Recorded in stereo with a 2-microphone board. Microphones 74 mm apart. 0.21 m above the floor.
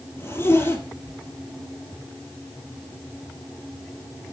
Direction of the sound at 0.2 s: 35° left (ahead or behind).